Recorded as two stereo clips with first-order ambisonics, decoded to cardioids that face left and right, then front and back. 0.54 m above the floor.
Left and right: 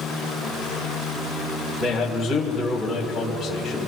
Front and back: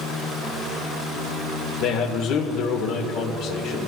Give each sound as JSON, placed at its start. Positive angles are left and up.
{"t": 1.8, "sound": "a man speaking", "azimuth_deg": 5, "distance_m": 1.6}